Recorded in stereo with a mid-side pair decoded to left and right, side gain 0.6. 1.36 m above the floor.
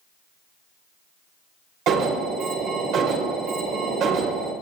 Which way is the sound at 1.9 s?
60° right.